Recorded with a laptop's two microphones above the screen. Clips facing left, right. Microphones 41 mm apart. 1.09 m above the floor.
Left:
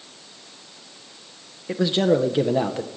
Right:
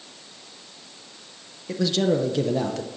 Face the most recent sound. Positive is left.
turn(degrees=25)  # may be behind; listen again after turning